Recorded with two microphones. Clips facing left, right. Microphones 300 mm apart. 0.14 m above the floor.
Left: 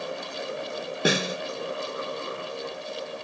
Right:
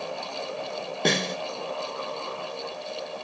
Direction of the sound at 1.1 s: 5° left (ahead or behind).